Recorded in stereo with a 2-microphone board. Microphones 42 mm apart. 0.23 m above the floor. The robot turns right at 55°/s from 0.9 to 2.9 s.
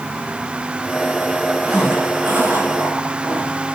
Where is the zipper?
170° right, 9 m; by 3.5 s 105° right, 9 m.